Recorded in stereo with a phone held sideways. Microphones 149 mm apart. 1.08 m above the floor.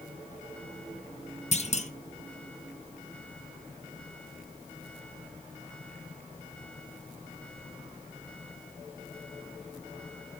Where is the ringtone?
No ringtone in this recording.